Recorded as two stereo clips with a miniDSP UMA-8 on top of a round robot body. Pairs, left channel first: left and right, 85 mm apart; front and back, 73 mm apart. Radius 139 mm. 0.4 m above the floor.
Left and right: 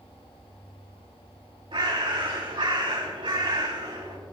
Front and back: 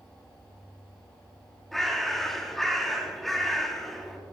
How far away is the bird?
About 3.5 m.